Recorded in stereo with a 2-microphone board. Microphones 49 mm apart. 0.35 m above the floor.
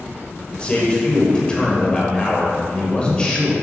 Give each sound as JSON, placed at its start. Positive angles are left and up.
{"t": 0.5, "sound": "a man speaking", "side_deg": 20, "distance_m": 1.4}